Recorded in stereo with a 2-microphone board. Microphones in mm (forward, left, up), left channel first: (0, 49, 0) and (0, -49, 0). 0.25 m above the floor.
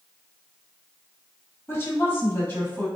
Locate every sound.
1.7 s a woman speaking: 30° left (ahead or behind), 1.4 m; by 2.9 s 25° left (ahead or behind), 1.6 m